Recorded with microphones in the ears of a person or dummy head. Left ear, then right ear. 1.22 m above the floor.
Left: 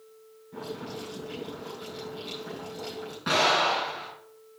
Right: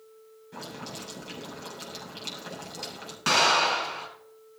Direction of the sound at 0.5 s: 70° right (ahead or behind).